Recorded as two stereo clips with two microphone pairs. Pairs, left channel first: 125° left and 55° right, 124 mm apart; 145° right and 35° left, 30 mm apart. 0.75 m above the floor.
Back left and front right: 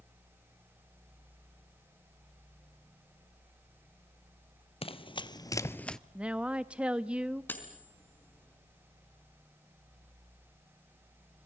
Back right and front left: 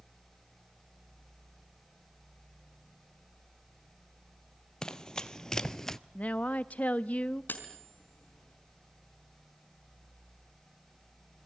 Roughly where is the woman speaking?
Behind right.